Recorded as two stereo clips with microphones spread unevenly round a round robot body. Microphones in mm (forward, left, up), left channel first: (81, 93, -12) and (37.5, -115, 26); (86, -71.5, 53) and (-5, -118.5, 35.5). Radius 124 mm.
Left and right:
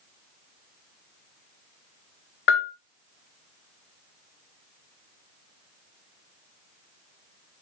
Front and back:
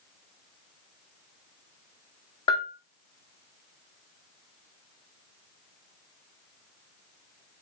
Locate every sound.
2.5 s a bell: 80° left, 1.0 m